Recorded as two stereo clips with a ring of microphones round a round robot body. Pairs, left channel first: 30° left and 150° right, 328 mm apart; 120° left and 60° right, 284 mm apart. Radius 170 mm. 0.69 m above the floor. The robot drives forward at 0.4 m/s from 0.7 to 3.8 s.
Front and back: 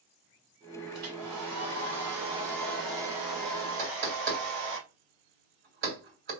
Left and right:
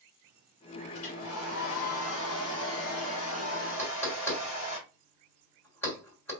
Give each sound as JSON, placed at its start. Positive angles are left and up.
{"t": 0.9, "sound": "a hair dryer", "azimuth_deg": 170, "distance_m": 4.0}
{"t": 3.8, "sound": "knocking", "azimuth_deg": -155, "distance_m": 3.0}